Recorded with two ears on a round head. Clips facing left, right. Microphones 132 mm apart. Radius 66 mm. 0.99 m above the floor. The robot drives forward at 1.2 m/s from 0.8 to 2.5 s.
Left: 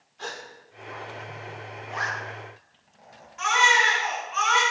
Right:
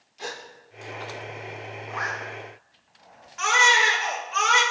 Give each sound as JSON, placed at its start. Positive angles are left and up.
{"t": 0.2, "sound": "a gasp", "side_deg": -10, "distance_m": 1.1}
{"t": 1.9, "sound": "a zipper", "side_deg": 35, "distance_m": 3.0}
{"t": 3.4, "sound": "a baby crying", "side_deg": -70, "distance_m": 2.0}